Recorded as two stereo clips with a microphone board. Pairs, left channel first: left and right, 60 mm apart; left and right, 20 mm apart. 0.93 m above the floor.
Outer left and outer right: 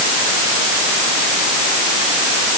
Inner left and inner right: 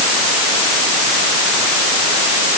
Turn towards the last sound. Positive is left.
No sound to turn to.